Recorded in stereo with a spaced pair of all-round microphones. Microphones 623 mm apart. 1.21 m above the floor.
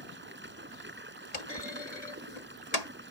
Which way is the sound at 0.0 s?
15° right (ahead or behind).